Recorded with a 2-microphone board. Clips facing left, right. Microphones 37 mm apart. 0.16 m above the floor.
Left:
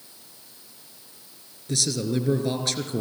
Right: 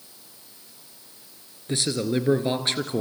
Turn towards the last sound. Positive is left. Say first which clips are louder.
# right 1 dB
turn(degrees=-35)  # may be behind; listen again after turning